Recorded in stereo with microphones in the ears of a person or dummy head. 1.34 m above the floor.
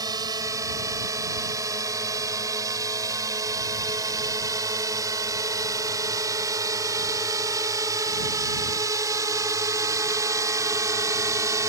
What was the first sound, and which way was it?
A drone, 20° right (ahead or behind).